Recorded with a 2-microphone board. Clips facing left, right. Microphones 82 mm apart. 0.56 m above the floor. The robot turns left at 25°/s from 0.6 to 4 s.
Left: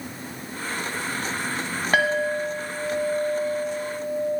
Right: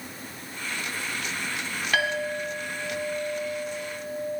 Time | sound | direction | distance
1.9 | a clink | 135° left | 0.8 m